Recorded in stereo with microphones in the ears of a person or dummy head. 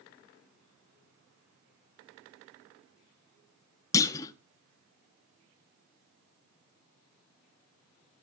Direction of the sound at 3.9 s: 25° left (ahead or behind).